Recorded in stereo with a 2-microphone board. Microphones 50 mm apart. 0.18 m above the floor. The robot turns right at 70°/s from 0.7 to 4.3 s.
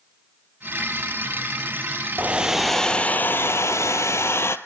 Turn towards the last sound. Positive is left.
turn(degrees=115)